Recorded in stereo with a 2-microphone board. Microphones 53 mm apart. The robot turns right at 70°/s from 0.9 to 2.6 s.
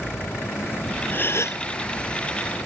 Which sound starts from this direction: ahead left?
A gasp, at 1.1 s.